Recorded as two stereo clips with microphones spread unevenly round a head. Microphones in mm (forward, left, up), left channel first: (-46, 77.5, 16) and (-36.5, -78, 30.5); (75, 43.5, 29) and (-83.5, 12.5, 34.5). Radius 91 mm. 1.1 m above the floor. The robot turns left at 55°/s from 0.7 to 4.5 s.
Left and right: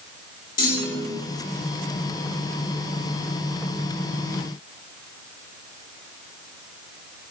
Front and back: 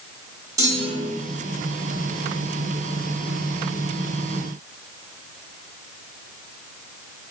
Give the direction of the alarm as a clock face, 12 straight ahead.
No alarm in this recording.